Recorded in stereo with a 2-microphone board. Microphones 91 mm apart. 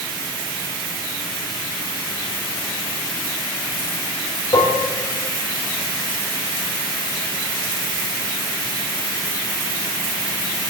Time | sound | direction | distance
4.5 | dishes clattering | 45° left (ahead or behind) | 0.8 m